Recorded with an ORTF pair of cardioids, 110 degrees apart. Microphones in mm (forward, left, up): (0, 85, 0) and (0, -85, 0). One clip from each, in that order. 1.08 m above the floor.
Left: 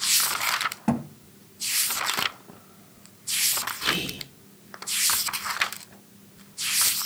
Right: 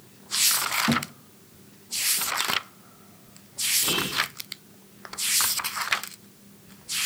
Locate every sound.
0.9 s a thud: 30° left, 2.5 m
3.8 s whispering: 5° right, 3.5 m